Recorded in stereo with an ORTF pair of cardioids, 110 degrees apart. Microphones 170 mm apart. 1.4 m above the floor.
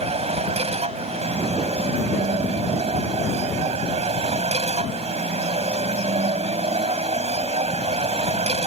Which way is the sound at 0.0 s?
35° right.